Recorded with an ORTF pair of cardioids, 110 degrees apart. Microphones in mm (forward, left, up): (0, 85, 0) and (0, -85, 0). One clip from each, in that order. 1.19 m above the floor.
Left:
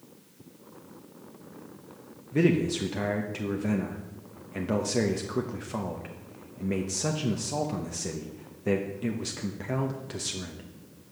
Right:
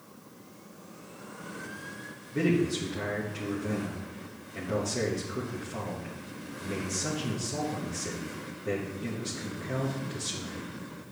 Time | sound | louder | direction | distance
2.3 | a man speaking | left 2 dB | 40° left | 1.0 m